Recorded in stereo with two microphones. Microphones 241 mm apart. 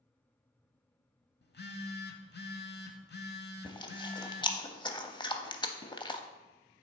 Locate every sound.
1.4 s a phone buzzing: 45° left (ahead or behind), 0.7 m
3.6 s chewing: 20° left (ahead or behind), 0.5 m